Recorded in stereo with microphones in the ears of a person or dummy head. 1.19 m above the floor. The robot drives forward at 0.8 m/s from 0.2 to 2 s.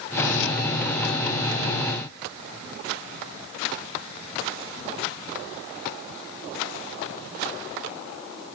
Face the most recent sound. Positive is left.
No sound to turn to.